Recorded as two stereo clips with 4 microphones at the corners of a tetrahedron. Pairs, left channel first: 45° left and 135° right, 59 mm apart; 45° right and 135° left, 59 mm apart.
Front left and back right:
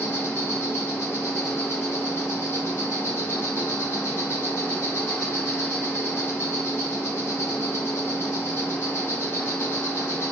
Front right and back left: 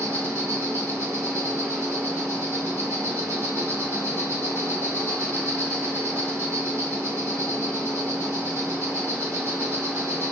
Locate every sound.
0.0 s an insect: 90° left, 1.3 m